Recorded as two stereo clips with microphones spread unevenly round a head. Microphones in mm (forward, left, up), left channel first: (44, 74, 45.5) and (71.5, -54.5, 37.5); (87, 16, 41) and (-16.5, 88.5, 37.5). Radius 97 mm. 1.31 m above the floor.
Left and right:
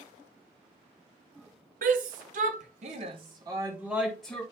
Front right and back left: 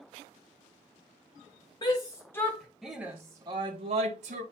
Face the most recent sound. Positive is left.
turn(degrees=-175)